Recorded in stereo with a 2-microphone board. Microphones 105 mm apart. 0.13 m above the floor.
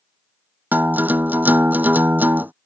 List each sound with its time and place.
0.7 s a guitar: 15° right (ahead or behind)